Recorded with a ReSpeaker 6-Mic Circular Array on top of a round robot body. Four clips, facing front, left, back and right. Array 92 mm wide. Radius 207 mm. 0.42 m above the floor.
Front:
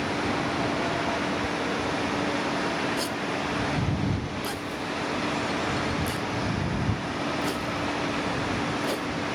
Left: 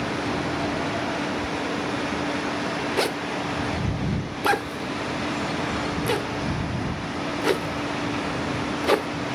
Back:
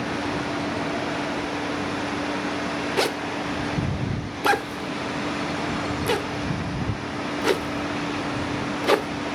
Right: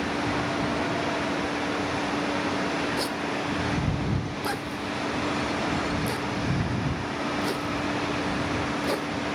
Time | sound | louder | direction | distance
1.4 | whispering | even, back 1 dB | 25° left | ?
3.0 | a zipper | left 3 dB, back 4 dB | 150° left | ?